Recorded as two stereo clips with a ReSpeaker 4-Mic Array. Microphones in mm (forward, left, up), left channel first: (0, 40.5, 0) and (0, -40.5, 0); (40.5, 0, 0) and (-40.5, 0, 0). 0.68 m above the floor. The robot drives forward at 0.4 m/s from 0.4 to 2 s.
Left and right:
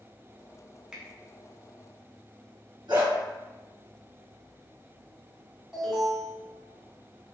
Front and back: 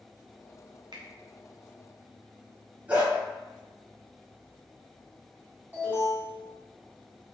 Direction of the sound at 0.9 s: 170° right.